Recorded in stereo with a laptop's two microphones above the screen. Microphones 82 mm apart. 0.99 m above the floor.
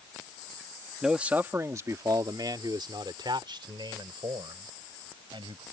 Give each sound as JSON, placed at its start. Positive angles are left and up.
{"t": 1.0, "sound": "a man speaking", "side_deg": -5}